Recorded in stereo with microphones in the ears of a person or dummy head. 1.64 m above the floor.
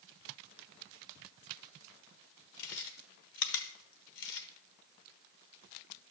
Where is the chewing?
70° left (ahead or behind), 1.1 m.